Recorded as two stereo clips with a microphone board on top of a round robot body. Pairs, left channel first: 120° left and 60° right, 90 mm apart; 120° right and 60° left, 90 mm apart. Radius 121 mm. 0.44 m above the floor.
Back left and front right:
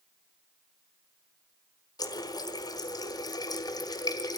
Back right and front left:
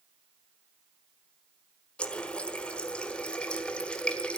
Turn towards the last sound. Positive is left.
turn(degrees=160)